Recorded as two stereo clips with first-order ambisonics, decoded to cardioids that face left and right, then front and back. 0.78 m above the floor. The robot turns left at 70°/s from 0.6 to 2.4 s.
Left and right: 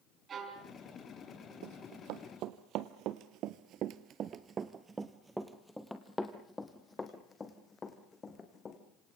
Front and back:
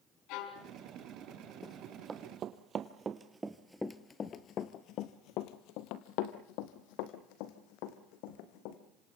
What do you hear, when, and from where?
0.3 s a violin: 25° right, 4 m; by 0.7 s 35° right, 4 m
1.6 s running footsteps: 75° right, 1.9 m; by 8.8 s 20° left, 3.5 m